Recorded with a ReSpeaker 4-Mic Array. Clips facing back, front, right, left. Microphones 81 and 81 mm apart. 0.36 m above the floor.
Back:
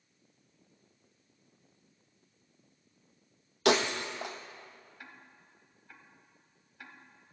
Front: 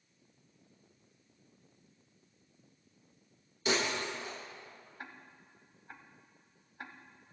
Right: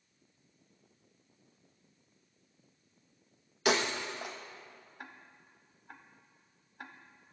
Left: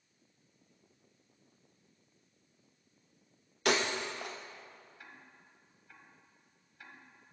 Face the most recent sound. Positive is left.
turn(degrees=-55)